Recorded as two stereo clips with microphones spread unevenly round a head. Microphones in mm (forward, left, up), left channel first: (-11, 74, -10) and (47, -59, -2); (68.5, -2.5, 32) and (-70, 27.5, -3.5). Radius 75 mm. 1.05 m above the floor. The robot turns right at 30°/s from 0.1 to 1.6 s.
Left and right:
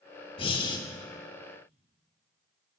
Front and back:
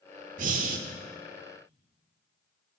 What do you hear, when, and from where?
0.4 s breathing: 150° left, 0.8 m; by 0.8 s 160° left, 0.8 m